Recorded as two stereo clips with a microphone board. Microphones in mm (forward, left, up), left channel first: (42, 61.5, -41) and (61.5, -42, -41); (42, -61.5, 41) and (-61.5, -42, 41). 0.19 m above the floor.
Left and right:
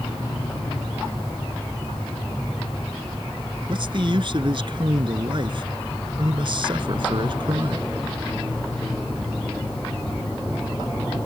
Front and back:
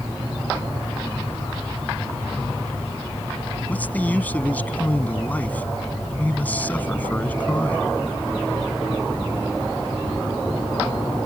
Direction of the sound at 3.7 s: 80° right.